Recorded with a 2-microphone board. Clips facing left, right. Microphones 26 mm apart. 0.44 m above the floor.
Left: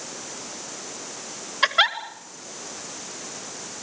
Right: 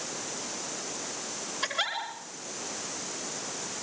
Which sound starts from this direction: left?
A giggle, at 1.6 s.